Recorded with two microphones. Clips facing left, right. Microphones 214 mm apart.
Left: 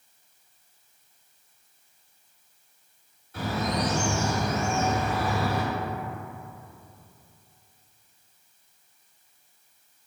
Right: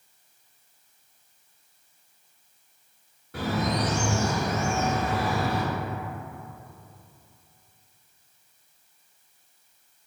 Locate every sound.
3.3 s a bird: 70° right (ahead or behind), 1.0 m